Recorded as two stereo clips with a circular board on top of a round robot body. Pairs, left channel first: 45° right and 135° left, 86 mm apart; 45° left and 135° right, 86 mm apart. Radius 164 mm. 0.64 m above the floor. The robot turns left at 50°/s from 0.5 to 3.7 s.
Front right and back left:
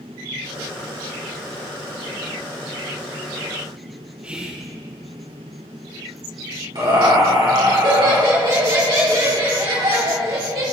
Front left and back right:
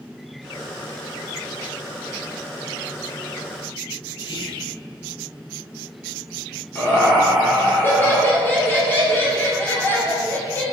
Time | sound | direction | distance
4.2 | whispering | 60° left | 0.9 m
6.8 | laughter | 110° left | 3 m